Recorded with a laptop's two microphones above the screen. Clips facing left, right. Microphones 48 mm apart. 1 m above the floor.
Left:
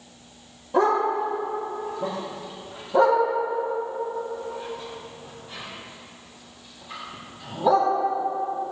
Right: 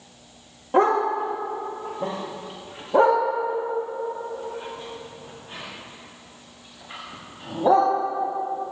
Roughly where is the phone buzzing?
No phone buzzing in this recording.